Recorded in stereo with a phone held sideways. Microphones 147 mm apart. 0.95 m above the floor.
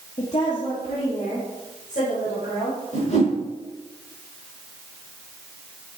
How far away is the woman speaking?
About 1.9 m.